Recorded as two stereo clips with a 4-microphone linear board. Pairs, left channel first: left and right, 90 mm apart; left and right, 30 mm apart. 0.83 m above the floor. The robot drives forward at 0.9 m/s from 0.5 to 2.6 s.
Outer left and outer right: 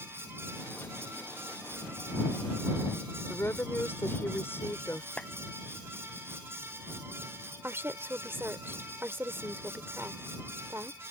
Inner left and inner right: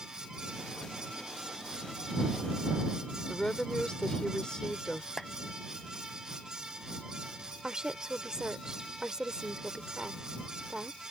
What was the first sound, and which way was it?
A woman speaking, 30° left (ahead or behind).